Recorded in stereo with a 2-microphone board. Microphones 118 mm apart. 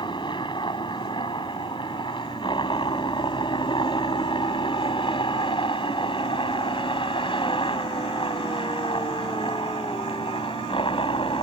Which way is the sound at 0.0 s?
40° left (ahead or behind).